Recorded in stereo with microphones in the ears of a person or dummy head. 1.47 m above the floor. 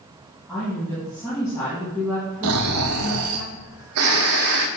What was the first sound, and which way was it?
A woman speaking, 15° left (ahead or behind).